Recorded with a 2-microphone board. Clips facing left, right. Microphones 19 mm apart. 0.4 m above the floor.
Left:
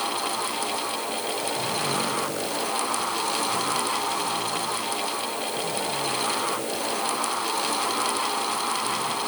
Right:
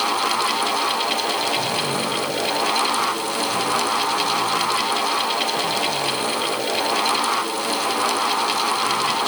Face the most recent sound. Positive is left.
No sound to turn to.